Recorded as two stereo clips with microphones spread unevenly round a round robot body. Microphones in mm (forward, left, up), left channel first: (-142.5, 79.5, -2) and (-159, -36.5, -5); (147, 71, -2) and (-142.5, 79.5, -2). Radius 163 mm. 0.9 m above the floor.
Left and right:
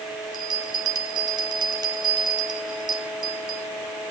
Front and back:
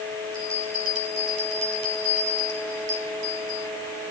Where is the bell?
150° right, 2.5 m.